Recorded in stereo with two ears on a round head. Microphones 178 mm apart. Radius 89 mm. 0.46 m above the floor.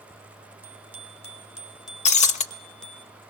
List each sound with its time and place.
0.6 s a bicycle bell: 10° right (ahead or behind), 3 m; by 3.0 s 5° left (ahead or behind), 4 m
2.0 s breaking glass: 35° left (ahead or behind), 0.9 m